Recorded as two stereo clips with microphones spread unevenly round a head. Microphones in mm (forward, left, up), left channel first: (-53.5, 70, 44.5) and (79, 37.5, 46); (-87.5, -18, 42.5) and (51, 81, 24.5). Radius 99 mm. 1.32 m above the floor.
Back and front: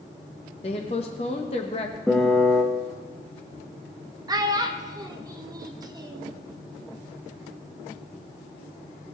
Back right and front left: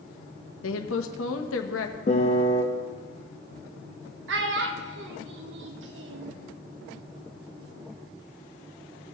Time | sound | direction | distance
0.6 | a woman speaking | 135° right | 1.2 m
2.1 | a piano | 105° right | 0.9 m
4.3 | a child speaking | 45° left | 1.0 m